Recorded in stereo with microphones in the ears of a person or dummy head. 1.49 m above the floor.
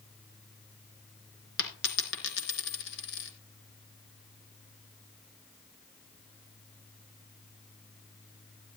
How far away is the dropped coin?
About 3 m.